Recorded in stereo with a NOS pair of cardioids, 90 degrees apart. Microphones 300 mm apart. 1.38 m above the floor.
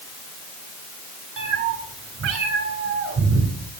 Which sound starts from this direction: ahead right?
A cat meowing, at 1.4 s.